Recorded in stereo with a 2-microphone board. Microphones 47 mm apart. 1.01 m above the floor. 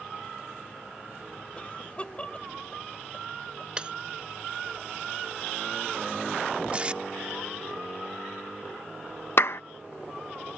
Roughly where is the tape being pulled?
Right.